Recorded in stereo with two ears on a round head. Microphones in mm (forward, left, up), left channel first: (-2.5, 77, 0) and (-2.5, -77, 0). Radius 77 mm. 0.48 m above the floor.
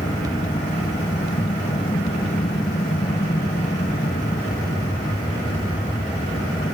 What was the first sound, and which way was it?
An aircraft, 25° left (ahead or behind).